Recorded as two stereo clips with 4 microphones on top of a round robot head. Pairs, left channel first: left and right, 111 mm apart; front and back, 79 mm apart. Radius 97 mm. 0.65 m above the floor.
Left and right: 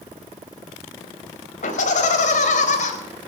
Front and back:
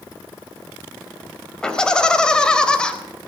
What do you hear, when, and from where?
1.6 s laughter: 80° left, 4 m